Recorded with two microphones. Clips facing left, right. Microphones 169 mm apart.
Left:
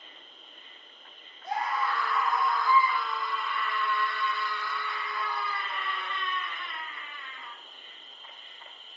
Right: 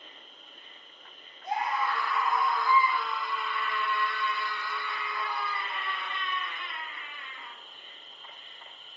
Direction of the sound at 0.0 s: 40° right (ahead or behind).